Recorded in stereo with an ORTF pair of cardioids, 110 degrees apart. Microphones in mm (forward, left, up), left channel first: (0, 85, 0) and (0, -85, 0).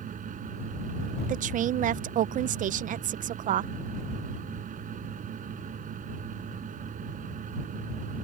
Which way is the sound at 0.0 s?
50° right.